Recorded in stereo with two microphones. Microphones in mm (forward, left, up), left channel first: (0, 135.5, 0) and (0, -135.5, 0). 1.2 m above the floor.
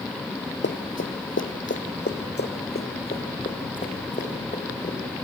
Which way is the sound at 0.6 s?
45° left (ahead or behind).